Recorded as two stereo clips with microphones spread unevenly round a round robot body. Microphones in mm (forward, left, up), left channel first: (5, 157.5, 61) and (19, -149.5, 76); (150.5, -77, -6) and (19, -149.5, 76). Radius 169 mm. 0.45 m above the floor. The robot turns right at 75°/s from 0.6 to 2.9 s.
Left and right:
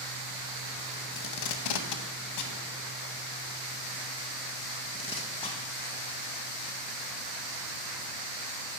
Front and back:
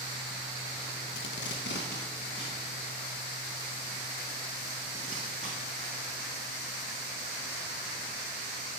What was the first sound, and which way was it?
Tape being pulled, 35° left.